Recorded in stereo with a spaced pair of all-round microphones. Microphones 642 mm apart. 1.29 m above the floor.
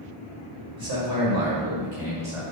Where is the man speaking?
35° right (ahead or behind), 3.5 m; by 2.4 s 55° right (ahead or behind), 4 m.